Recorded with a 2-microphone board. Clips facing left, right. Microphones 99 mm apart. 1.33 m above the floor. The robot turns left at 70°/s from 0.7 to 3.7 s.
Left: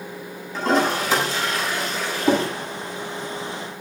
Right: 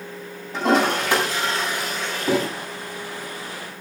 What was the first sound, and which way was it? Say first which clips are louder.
A toilet flushing: right 1 dB; 85° right.